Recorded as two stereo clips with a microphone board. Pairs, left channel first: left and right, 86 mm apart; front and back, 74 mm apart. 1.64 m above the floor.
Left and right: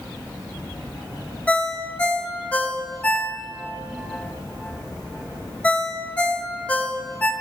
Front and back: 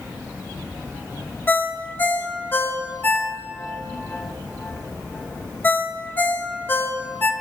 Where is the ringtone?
30° left, 0.7 m.